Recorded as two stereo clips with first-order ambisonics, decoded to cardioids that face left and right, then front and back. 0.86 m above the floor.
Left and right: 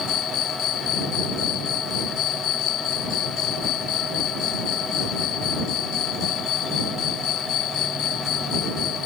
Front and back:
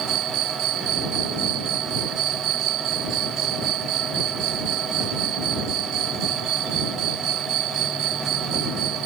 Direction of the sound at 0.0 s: 135° left.